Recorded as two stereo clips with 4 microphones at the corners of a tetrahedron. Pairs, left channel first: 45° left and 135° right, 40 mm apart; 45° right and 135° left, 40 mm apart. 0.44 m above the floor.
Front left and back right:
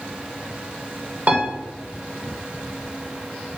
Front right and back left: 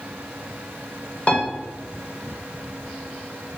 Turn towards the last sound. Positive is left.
turn(degrees=-95)